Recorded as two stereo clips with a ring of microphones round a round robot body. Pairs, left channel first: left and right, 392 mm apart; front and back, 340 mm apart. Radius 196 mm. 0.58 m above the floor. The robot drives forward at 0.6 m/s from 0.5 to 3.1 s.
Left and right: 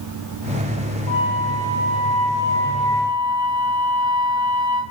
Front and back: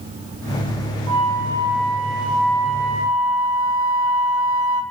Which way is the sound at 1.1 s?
160° left.